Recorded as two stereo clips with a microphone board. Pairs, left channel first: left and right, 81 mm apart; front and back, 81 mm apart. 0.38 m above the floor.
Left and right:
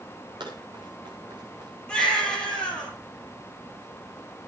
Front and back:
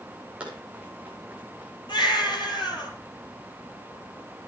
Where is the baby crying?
15° left, 9 m.